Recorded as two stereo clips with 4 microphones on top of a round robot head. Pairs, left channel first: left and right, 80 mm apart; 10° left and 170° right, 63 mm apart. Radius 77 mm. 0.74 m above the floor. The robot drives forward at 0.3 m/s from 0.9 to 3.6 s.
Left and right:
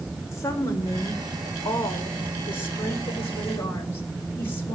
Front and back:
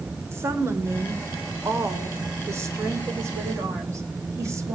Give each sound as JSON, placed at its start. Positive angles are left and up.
{"t": 0.3, "sound": "a woman speaking", "azimuth_deg": 145, "distance_m": 3.5}